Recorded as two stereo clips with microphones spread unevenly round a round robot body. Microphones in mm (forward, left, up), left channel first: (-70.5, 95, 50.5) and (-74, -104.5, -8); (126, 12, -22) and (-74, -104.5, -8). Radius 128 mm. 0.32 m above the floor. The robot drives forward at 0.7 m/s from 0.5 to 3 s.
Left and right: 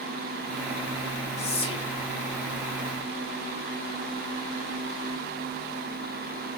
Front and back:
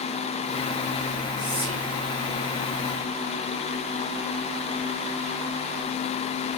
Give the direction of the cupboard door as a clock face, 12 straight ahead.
No cupboard door in this recording.